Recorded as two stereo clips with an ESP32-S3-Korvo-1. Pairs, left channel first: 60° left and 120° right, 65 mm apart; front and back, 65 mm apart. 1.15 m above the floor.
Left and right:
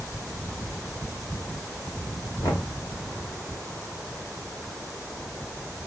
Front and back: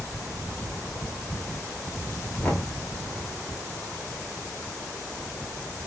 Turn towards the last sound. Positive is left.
turn(degrees=70)